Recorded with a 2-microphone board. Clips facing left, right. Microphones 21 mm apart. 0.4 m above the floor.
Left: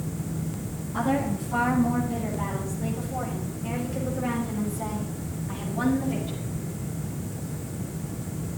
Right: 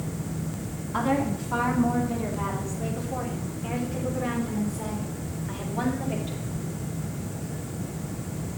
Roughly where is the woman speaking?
Right.